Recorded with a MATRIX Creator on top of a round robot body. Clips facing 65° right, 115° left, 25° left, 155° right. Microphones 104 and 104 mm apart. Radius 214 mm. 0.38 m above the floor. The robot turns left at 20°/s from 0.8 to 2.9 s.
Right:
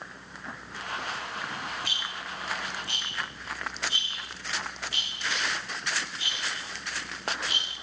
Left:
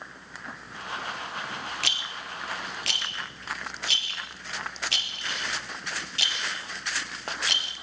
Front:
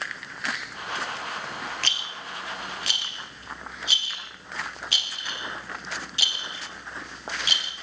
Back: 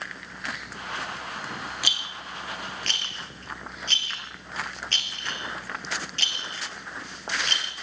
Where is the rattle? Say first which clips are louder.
Even, even; 125° left, 2 m; by 7.7 s 100° left, 2 m.